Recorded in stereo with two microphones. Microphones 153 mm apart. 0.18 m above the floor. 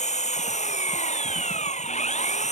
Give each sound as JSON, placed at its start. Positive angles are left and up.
{"t": 0.0, "sound": "an engine running", "side_deg": 50}